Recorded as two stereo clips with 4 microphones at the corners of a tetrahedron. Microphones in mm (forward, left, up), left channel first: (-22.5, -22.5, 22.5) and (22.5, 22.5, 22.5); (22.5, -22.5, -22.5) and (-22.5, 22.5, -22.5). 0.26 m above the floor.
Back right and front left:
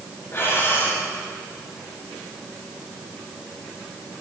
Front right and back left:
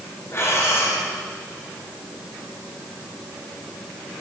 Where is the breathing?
85° right, 6 m.